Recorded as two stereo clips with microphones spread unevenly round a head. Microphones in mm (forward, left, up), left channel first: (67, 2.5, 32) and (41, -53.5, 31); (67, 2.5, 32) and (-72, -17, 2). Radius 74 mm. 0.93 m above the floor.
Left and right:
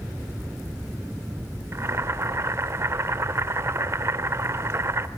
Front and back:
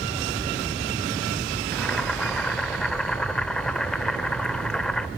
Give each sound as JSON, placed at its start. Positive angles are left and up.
{"t": 1.7, "sound": "boiling", "azimuth_deg": -70, "distance_m": 1.1}